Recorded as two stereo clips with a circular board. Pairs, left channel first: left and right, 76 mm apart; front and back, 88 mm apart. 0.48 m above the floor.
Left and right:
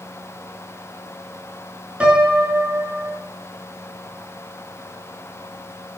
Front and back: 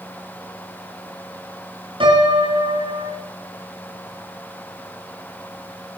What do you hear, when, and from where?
2.0 s a piano: 165° right, 4.5 m